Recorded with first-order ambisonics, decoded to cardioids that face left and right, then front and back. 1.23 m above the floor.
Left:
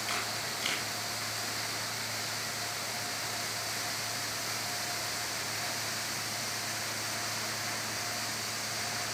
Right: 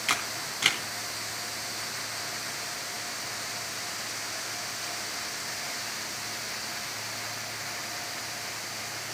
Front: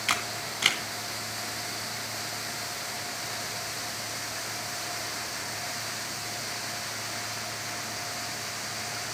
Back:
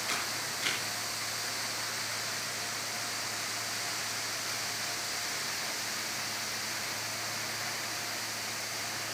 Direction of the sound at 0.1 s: 40° right.